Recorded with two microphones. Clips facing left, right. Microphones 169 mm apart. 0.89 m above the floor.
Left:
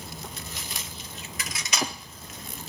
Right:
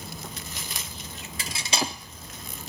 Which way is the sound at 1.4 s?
30° right (ahead or behind).